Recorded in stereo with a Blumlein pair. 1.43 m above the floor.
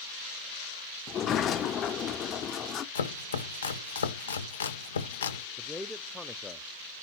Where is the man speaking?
5° left, 0.6 m.